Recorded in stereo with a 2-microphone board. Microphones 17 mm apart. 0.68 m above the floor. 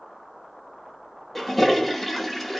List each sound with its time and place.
1.4 s a toilet flushing: centre (ahead or behind), 0.8 m